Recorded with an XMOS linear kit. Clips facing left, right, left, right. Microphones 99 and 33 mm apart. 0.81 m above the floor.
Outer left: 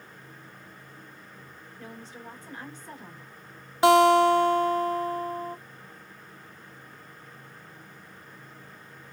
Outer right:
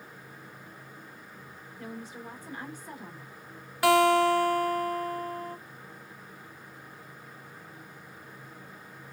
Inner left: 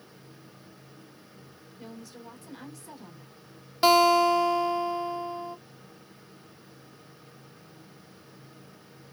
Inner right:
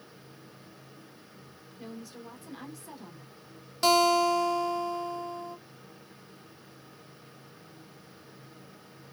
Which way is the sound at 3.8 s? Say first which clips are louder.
Outer left 4 dB, inner left 3 dB; 20° left (ahead or behind).